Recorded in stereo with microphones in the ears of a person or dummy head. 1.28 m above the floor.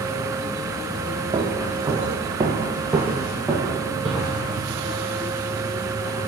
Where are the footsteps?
20° right (ahead or behind), 1.7 m; by 4.5 s centre (ahead or behind), 2.5 m.